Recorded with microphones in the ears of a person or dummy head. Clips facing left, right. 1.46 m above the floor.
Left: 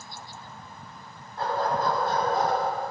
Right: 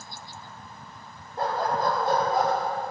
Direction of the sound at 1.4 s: 40° right (ahead or behind).